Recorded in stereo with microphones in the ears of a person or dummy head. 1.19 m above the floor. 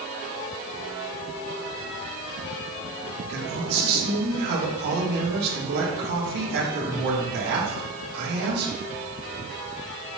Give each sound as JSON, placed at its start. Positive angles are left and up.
{"t": 3.3, "sound": "a man speaking", "side_deg": -55, "distance_m": 3.5}